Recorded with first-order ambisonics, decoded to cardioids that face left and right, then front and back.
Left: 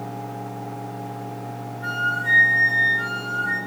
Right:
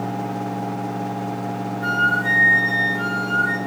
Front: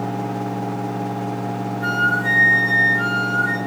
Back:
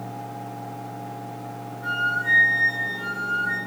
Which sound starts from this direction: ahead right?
A flute, at 1.8 s.